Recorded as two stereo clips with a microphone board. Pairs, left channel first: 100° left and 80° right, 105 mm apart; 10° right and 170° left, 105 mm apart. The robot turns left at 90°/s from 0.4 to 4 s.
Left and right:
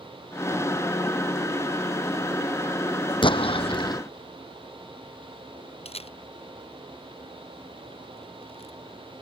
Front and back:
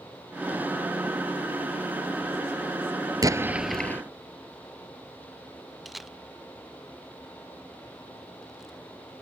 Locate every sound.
3.2 s an explosion: 125° left; by 4.0 s 55° left
5.8 s a camera shutter: 80° left